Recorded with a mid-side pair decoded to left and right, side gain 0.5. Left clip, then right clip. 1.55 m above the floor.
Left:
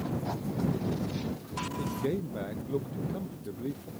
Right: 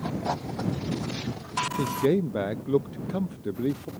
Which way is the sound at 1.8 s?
55° right.